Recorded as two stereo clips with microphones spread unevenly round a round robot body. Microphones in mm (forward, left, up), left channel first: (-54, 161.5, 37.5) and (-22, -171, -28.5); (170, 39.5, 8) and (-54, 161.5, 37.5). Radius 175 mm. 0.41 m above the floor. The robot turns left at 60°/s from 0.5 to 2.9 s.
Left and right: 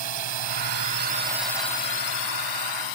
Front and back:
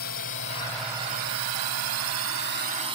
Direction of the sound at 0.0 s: 75° right.